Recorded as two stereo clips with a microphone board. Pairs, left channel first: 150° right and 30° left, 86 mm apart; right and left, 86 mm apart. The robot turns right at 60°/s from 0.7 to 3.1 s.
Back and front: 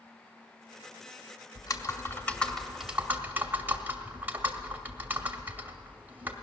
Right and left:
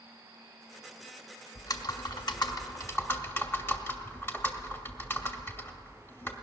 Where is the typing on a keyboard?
125° right, 1.0 m; by 6.4 s 30° right, 1.0 m.